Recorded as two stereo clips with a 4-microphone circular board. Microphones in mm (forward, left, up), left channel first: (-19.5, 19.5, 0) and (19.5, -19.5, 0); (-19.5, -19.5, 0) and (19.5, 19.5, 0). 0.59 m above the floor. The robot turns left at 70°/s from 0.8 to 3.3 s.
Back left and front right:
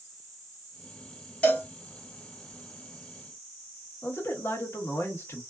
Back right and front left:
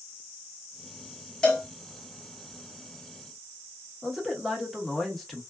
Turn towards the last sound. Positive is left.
turn(degrees=135)